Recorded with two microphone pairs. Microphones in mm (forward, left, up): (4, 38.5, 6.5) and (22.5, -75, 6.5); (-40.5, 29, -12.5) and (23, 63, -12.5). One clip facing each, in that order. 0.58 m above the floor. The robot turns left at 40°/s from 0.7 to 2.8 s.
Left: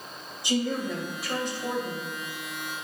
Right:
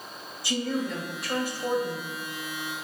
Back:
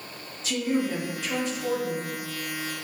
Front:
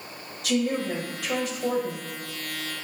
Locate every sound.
0.4 s a woman speaking: 30° left, 2 m; by 2.1 s 25° right, 2 m